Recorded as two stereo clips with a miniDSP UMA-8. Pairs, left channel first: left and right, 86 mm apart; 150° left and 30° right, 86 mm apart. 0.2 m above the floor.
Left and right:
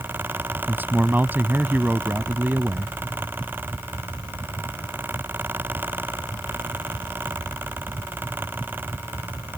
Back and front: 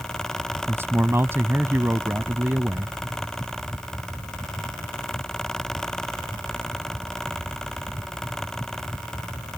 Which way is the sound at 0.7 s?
50° right.